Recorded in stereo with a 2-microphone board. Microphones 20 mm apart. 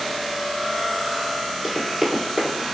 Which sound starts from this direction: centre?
Running footsteps, at 1.6 s.